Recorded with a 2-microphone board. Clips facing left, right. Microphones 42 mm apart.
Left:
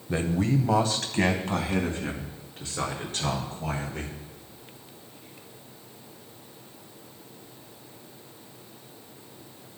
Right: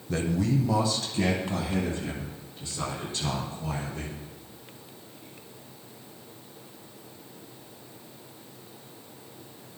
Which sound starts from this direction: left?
A man speaking, at 0.1 s.